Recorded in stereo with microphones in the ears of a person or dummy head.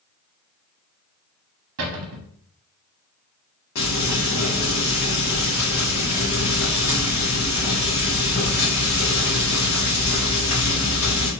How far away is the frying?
About 2.0 m.